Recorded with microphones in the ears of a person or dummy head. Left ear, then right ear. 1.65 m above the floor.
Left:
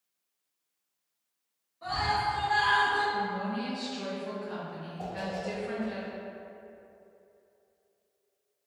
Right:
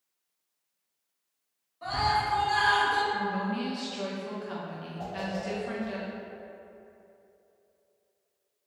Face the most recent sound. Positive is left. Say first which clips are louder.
# even
turn(degrees=30)  # may be behind; listen again after turning